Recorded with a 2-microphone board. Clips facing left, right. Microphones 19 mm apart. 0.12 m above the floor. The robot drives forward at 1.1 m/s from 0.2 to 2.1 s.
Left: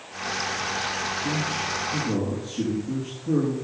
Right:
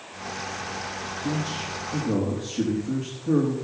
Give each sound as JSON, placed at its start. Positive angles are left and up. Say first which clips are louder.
{"t": 1.2, "sound": "a man speaking", "louder": "left 2 dB", "side_deg": -65, "distance_m": 4.0}